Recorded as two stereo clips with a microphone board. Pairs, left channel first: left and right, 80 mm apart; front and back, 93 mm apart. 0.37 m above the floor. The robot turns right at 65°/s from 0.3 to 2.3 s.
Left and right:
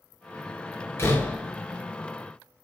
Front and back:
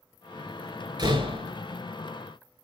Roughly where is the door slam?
Behind left.